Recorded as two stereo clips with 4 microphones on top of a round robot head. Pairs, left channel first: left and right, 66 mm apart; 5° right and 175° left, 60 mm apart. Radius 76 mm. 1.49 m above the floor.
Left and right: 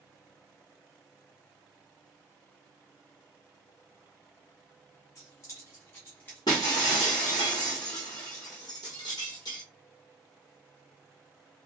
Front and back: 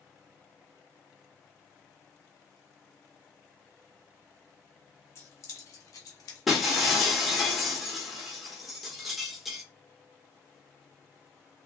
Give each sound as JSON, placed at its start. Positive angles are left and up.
{"t": 5.2, "sound": "keys jangling", "azimuth_deg": 40, "distance_m": 1.9}
{"t": 6.5, "sound": "breaking glass", "azimuth_deg": 90, "distance_m": 1.4}